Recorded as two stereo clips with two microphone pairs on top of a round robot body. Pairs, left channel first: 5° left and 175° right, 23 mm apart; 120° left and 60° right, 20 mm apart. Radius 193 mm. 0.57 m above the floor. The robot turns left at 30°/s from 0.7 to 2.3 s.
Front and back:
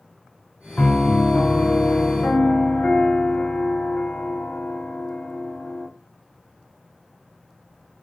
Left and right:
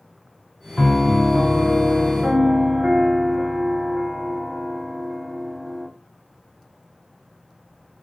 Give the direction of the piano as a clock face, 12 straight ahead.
10 o'clock.